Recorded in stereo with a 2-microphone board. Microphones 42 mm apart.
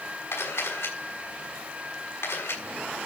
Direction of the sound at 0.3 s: 85° left.